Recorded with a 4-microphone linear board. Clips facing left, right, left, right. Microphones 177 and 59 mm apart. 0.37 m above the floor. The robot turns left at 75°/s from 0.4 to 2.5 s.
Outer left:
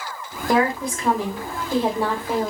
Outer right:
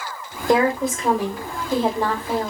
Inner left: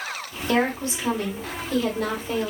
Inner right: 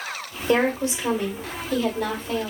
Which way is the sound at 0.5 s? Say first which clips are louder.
Outer right 2 dB, inner right 2 dB; 20° right (ahead or behind).